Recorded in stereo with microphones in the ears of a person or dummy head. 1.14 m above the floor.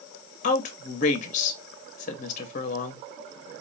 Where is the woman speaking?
45° left (ahead or behind), 1.1 m.